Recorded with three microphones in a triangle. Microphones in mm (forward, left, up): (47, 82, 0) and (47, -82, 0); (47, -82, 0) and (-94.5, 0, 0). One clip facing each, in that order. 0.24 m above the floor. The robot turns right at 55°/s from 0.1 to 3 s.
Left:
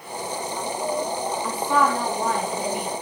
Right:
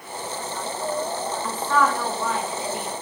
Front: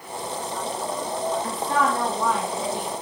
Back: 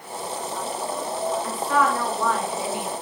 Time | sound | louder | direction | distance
1.4 | a woman speaking | even, back 3 dB | 5° left | 2 m